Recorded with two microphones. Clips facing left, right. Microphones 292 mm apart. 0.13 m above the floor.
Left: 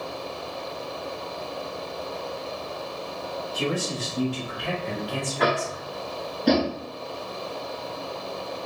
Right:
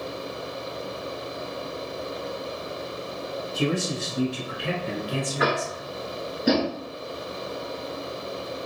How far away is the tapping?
About 0.7 m.